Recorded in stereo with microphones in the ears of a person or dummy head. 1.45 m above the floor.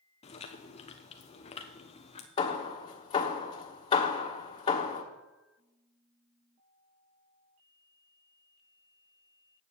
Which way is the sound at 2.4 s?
30° left (ahead or behind).